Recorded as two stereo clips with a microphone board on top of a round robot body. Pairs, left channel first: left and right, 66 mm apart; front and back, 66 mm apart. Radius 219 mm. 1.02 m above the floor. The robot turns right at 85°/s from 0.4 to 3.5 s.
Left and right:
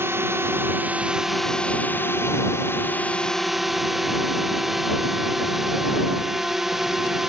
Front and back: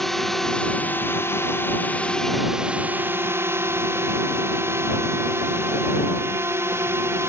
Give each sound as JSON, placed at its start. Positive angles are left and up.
{"t": 0.0, "sound": "a drone", "azimuth_deg": -85}